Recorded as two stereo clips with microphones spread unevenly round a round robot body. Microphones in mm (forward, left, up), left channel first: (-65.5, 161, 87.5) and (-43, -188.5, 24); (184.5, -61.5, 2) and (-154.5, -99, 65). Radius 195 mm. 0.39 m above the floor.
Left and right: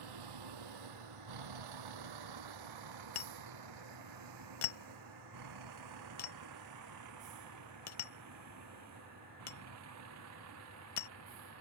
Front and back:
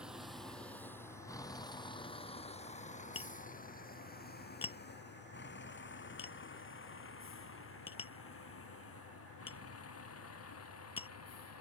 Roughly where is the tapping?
Left.